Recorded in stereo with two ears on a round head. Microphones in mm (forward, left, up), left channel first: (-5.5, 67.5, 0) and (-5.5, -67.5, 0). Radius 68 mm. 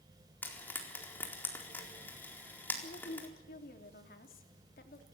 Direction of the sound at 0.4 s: 15° left (ahead or behind).